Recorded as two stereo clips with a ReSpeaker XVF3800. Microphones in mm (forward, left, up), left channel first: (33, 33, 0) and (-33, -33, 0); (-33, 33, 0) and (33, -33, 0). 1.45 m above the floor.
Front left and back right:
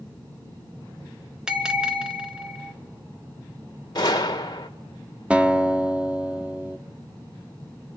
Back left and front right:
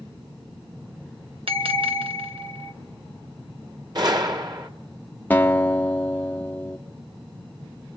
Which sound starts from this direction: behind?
A guitar, at 5.3 s.